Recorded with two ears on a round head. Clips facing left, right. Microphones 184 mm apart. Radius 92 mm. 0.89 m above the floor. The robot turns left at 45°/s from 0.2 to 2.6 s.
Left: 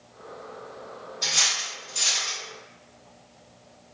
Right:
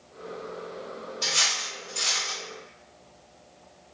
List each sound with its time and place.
1.2 s cutlery clinking: 10° right (ahead or behind), 1.6 m; by 2.4 s 40° left (ahead or behind), 1.6 m